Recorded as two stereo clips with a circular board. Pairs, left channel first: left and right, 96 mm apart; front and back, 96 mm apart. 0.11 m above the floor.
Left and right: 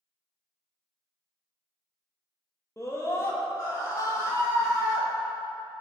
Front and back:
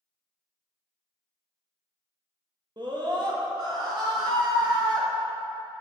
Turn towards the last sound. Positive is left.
turn(degrees=140)